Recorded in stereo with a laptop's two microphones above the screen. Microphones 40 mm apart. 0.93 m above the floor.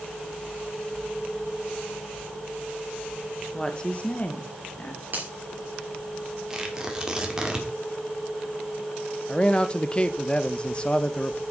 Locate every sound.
3.5 s a woman speaking: 10° left (ahead or behind), 1.0 m; by 5.0 s 35° left (ahead or behind), 1.8 m
5.1 s a finger snap: 55° right (ahead or behind), 3 m
6.5 s tearing paper: 15° right (ahead or behind), 1.9 m
9.3 s a man speaking: 25° left (ahead or behind), 0.7 m